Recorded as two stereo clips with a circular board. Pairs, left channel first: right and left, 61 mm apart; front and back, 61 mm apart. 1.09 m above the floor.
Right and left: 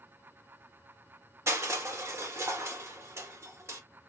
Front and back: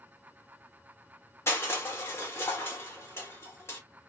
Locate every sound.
1.5 s crushing: 45° left, 1.5 m